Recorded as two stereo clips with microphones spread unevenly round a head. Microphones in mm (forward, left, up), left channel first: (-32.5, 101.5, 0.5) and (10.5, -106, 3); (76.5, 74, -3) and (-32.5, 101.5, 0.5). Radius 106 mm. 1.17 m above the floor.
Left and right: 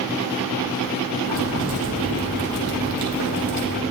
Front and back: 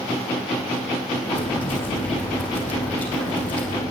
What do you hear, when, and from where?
1.3 s boiling: 70° right, 8 m